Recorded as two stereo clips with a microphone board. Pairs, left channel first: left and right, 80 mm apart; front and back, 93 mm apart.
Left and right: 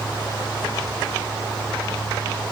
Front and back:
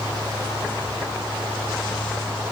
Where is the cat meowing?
No cat meowing in this recording.